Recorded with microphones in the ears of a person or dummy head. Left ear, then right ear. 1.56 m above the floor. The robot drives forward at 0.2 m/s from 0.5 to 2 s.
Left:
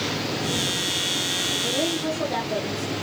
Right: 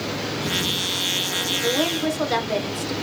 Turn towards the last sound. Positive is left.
turn(degrees=-65)  # may be behind; listen again after turning